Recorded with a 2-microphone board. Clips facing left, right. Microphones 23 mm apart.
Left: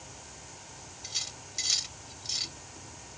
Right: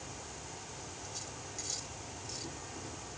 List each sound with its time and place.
0.0 s an insect: 70° right (ahead or behind)
1.0 s cutlery clinking: 70° left (ahead or behind)